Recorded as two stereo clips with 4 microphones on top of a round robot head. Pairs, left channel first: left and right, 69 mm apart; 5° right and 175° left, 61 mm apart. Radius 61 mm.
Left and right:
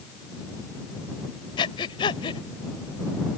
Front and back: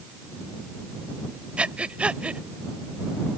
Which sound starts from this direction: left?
Breathing, at 1.6 s.